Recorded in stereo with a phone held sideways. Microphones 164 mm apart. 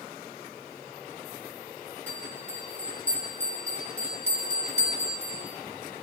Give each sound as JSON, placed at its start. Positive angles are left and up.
{"t": 2.1, "sound": "a bell", "side_deg": 35, "distance_m": 9.0}